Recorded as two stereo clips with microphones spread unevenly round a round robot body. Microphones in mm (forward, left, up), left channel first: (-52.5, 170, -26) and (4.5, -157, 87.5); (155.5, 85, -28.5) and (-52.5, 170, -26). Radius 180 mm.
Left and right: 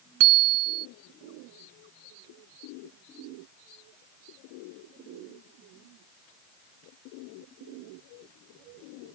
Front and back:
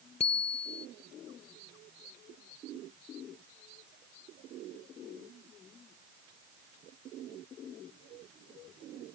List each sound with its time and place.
0.2 s a bicycle bell: 95° right